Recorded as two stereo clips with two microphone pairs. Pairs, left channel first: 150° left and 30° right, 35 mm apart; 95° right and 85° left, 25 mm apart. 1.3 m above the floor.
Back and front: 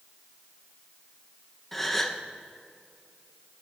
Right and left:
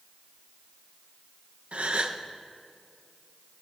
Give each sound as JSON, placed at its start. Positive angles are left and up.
{"t": 1.7, "sound": "a gasp", "azimuth_deg": 70, "distance_m": 0.6}